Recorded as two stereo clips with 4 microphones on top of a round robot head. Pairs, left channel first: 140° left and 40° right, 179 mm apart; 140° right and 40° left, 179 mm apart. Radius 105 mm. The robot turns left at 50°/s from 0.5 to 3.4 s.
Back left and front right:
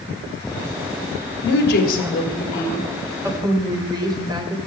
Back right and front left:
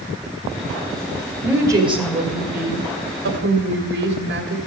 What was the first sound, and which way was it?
A woman speaking, 125° left.